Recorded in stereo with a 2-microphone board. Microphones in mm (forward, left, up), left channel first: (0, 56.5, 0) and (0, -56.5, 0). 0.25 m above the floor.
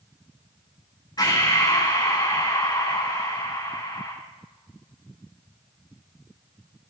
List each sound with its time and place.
1.2 s breathing: 35° left (ahead or behind), 8 m